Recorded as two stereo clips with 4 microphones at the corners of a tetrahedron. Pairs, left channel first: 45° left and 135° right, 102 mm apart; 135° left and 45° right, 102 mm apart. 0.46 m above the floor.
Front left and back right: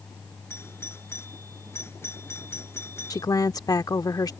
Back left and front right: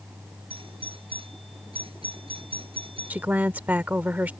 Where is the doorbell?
20° right.